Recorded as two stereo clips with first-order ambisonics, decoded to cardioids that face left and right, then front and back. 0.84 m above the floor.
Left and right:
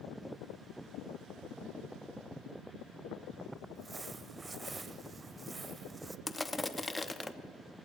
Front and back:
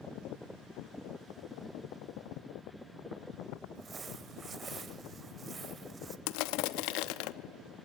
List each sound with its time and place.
3.8 s crumpling: 155° right, 0.6 m
6.3 s crushing: 10° left, 0.8 m